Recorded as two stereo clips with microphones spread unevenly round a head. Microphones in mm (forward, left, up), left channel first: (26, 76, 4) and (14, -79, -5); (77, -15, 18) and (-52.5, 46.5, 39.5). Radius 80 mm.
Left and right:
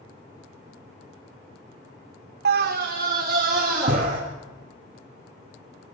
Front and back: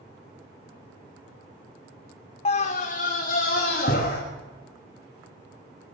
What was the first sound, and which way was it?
A scream, 75° right.